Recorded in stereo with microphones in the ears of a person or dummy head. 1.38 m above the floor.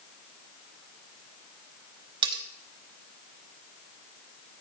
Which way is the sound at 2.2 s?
25° right (ahead or behind).